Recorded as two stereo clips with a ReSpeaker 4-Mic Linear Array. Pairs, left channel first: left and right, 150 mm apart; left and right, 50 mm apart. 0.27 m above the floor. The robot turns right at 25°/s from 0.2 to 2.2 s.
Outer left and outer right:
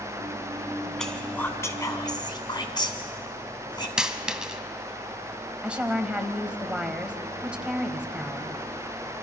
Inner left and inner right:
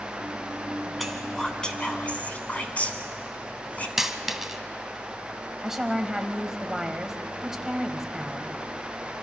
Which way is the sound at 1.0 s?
Centre (ahead or behind).